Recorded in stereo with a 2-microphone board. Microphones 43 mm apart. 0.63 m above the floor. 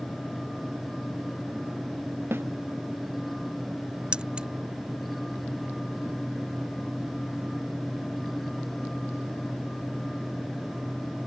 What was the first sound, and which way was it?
A snare drum, 60° right (ahead or behind).